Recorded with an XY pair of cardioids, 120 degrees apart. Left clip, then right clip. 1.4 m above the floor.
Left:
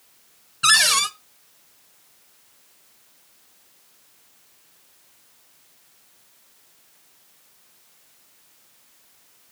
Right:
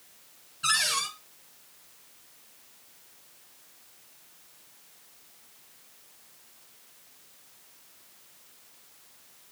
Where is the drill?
No drill in this recording.